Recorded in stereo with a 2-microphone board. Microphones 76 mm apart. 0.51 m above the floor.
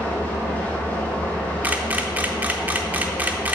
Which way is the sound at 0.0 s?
20° left (ahead or behind).